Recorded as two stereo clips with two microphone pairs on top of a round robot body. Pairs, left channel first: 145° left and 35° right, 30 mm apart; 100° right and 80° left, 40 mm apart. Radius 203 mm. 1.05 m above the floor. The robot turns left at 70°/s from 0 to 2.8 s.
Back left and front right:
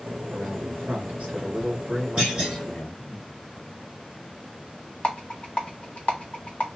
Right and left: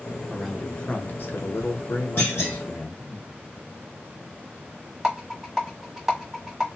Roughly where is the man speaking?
Ahead.